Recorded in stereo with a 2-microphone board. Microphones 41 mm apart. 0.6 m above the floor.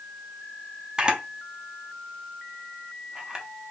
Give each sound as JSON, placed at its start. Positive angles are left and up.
{"t": 1.0, "sound": "a camera shutter", "side_deg": -20, "distance_m": 0.6}